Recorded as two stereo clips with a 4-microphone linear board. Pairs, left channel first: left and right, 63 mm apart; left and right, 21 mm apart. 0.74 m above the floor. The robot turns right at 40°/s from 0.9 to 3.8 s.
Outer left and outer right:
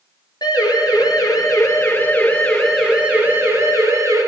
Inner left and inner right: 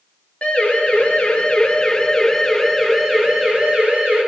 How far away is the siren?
About 10 m.